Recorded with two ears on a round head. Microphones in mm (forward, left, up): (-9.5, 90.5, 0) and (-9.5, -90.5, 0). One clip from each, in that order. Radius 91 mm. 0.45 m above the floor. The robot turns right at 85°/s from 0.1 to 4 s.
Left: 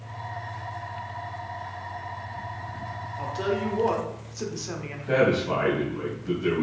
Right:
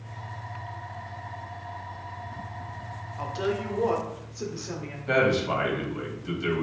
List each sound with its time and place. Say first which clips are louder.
3.2 s a woman speaking: left 1 dB; 40° right, 1.0 m; by 5.0 s 30° left, 1.0 m
5.1 s a man speaking: left 1 dB; 50° right (ahead or behind), 2.5 m